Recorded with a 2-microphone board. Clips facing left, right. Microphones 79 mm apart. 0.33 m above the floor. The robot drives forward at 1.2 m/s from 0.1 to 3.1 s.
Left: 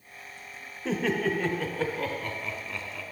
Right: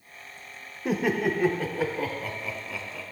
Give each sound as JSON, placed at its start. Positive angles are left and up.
{"t": 0.8, "sound": "laughter", "side_deg": -15, "distance_m": 0.8}